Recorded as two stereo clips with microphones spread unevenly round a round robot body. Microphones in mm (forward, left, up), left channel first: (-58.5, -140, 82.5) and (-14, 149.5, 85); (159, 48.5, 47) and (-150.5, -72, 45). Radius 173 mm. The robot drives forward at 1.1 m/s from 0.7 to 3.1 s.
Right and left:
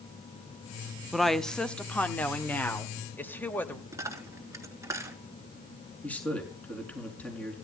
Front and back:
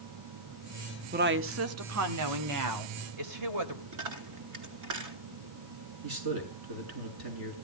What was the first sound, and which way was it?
A woman speaking, 170° left.